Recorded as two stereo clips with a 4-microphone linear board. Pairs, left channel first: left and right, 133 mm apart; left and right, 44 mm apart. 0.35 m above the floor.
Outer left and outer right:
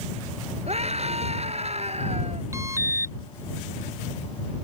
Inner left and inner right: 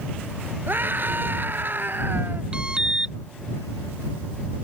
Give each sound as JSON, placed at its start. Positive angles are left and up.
{"t": 0.7, "sound": "a scream", "side_deg": -55}
{"t": 2.5, "sound": "an alarm", "side_deg": -20}